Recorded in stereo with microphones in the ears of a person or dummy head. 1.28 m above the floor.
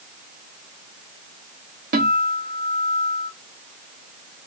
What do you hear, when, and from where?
1.9 s a guitar: 50° right (ahead or behind), 1.4 m